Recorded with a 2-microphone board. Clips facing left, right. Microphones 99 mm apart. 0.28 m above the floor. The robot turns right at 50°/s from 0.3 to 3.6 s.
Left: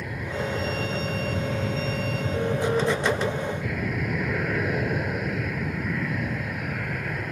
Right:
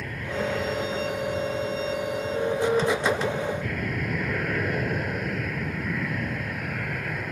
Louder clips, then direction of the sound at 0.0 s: Right 1 dB; 10° left.